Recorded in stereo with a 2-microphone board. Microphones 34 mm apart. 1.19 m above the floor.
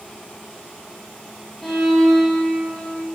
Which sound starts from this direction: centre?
A violin, at 1.6 s.